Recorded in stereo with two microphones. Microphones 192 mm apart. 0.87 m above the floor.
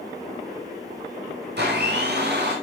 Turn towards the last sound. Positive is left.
turn(degrees=-65)  # may be behind; listen again after turning